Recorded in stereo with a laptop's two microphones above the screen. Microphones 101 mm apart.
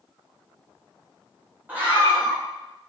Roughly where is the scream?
Centre.